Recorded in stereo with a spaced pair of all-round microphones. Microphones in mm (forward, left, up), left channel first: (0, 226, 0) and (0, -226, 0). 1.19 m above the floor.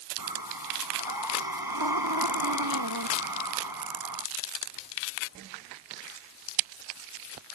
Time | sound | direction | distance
0.2 | breathing | 50° right (ahead or behind) | ?